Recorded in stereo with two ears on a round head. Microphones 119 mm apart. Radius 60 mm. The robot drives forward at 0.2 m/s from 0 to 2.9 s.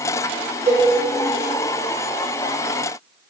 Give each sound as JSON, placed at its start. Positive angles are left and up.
{"t": 0.7, "sound": "a cowbell", "side_deg": -45, "distance_m": 0.6}